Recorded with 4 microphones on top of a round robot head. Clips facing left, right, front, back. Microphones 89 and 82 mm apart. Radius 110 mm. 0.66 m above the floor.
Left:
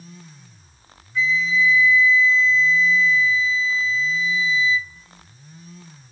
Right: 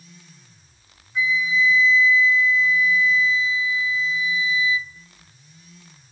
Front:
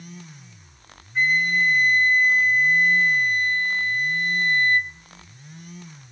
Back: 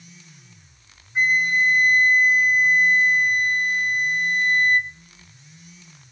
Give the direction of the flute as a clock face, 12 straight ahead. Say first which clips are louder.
Left 1 dB, back 1 dB; 4 o'clock.